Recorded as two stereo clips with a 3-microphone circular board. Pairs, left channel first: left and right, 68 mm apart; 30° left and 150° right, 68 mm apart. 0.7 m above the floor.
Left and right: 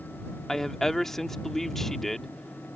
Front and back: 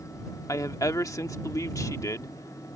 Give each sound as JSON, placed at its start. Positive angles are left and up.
{"t": 0.5, "sound": "a woman speaking", "azimuth_deg": 5}